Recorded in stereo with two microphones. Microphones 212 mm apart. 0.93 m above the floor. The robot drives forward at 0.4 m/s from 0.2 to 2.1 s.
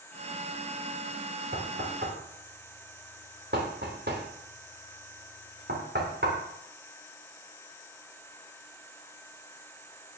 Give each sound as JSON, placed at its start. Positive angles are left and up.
{"t": 1.5, "sound": "knocking", "side_deg": -55, "distance_m": 3.0}